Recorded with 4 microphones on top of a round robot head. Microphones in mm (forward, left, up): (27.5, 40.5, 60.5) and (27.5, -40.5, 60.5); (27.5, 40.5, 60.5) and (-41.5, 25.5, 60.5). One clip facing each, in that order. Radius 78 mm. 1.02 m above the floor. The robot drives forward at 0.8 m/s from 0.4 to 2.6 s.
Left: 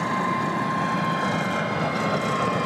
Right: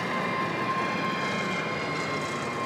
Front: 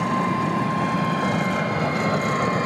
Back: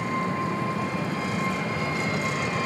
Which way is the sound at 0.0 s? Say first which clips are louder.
Left 5 dB, front 5 dB; 30° left.